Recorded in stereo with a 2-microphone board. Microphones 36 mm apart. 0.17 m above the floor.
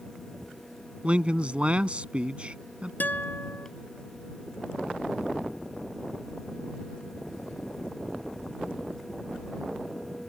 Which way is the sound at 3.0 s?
55° left (ahead or behind).